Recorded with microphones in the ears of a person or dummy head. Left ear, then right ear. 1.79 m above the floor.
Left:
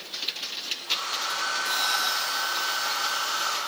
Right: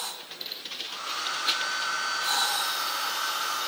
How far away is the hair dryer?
About 5 m.